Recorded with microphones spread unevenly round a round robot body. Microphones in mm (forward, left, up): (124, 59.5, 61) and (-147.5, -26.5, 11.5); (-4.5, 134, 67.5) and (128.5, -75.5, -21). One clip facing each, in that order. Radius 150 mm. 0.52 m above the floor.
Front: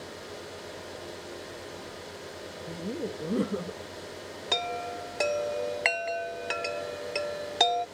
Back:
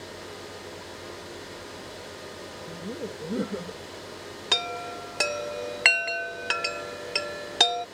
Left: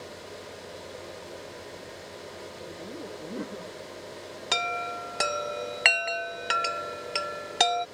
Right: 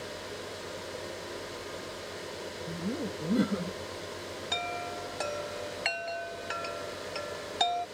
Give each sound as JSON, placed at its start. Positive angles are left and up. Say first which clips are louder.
{"t": 2.7, "sound": "laughter", "louder": "front 2 dB, right 6 dB", "azimuth_deg": -65}
{"t": 4.5, "sound": "a chime", "louder": "front 1 dB, left 6 dB", "azimuth_deg": 135}